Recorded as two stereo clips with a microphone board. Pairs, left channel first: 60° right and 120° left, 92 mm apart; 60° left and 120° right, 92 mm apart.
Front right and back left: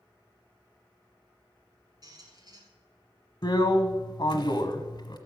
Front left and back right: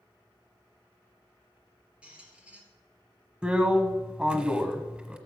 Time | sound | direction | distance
2.0 | a squeak | 160° left | 2.5 m
3.4 | a drill | 45° right | 1.2 m